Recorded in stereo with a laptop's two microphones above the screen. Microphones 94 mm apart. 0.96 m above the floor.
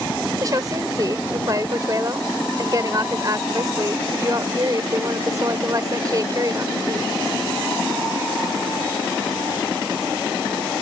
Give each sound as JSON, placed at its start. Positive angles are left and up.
{"t": 0.4, "sound": "a woman speaking", "side_deg": -40}